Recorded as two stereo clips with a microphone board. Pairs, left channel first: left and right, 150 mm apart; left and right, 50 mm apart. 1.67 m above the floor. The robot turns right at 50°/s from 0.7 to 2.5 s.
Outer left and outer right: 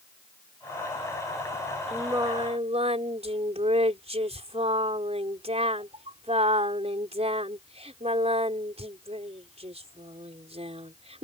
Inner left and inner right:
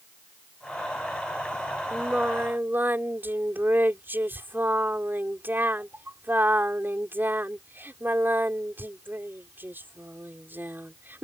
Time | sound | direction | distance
1.9 | singing | 15° right (ahead or behind) | ?